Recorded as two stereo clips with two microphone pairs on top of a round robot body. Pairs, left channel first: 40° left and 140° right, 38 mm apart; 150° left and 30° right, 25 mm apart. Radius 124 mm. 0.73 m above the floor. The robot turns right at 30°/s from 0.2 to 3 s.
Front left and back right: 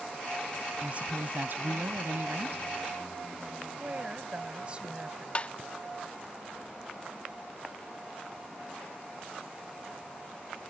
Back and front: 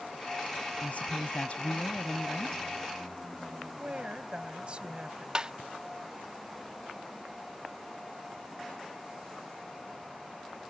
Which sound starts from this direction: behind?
A woman speaking, at 0.8 s.